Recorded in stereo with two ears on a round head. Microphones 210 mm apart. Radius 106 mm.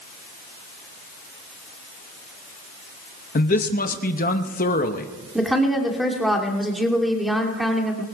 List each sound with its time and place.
3.4 s a man speaking: 35° left (ahead or behind), 0.9 m
5.3 s a woman speaking: centre (ahead or behind), 2.5 m